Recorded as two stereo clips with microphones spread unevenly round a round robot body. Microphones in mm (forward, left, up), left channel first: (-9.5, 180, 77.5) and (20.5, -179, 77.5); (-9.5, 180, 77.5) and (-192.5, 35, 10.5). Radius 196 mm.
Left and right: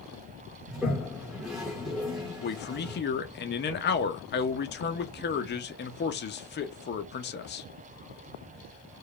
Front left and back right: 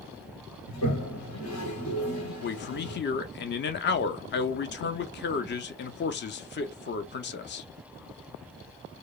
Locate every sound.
0.7 s a toilet flushing: 5° left, 0.9 m
2.4 s a man speaking: 65° left, 0.5 m